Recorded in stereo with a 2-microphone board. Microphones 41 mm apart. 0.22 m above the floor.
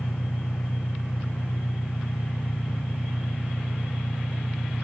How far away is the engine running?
About 2.0 m.